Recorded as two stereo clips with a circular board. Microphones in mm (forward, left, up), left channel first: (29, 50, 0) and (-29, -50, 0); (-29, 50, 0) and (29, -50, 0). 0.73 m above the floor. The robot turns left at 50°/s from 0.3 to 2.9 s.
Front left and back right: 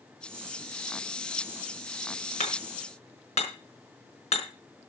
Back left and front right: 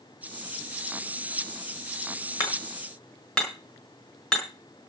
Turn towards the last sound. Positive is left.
turn(degrees=35)